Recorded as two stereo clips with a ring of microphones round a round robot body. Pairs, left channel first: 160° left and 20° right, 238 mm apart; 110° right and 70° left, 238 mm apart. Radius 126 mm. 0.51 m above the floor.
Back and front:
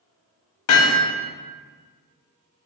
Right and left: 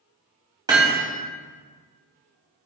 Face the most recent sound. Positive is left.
turn(degrees=140)